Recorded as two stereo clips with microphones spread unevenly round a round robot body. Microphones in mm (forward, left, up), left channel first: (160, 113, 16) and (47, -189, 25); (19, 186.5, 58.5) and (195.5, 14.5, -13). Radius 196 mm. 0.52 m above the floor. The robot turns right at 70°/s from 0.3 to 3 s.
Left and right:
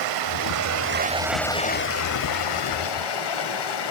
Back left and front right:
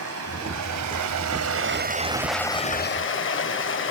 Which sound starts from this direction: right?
Running water, at 0.0 s.